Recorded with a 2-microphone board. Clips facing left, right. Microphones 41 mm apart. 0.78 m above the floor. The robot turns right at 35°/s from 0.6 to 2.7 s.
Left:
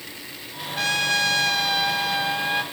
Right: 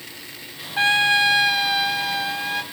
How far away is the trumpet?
About 0.7 m.